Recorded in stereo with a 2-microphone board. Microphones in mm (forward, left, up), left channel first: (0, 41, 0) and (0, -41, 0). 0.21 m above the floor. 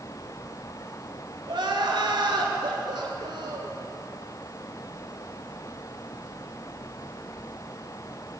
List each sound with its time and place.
1.5 s crying: 75° right (ahead or behind), 1.0 m